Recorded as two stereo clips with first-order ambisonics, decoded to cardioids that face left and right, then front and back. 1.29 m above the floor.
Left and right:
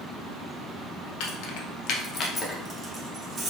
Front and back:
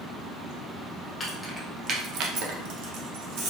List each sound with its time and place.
1.2 s keys jangling: 80° left, 0.8 m; by 3.5 s 160° right, 1.2 m